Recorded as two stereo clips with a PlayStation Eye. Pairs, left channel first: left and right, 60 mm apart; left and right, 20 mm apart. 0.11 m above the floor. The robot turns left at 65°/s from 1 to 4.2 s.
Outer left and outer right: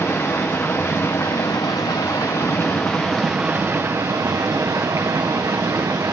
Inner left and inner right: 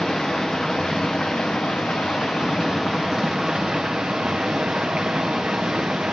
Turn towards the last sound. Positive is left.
turn(degrees=-65)